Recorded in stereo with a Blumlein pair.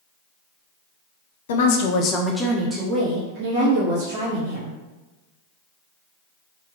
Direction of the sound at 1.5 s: 60° left.